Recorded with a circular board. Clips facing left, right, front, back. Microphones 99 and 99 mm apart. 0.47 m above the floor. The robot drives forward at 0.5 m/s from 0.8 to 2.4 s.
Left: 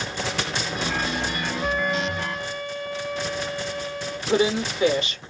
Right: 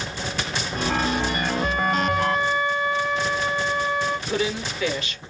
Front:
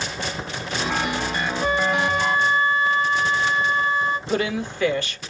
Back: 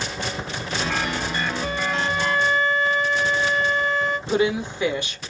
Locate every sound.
1.6 s a flute: 50° right, 1.0 m; by 4.2 s 70° right, 0.7 m
4.3 s a woman speaking: 120° left, 1.0 m